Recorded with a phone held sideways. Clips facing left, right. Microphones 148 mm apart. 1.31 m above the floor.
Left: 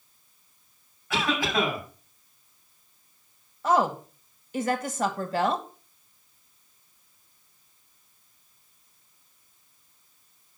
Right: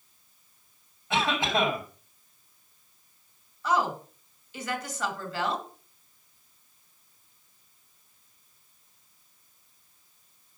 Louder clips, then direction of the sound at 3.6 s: Left 4 dB; 50° left (ahead or behind).